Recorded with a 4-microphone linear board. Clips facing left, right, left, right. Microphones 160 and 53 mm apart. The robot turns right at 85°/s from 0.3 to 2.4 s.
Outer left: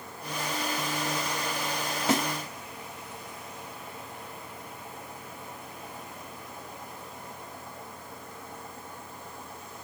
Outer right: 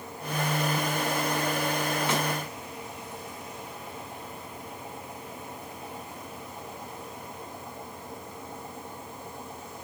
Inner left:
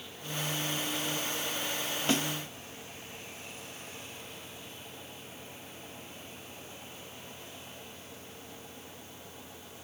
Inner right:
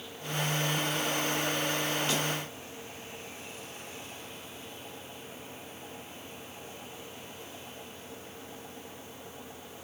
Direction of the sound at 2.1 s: 40° left (ahead or behind).